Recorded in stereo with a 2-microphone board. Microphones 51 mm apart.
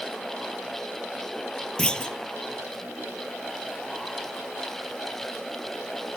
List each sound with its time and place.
1.8 s a clunk: 20° left (ahead or behind), 0.8 m